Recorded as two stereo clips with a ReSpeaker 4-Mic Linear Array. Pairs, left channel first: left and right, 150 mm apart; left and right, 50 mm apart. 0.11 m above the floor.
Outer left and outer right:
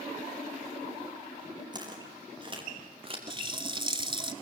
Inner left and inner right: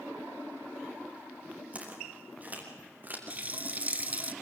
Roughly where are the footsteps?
Right.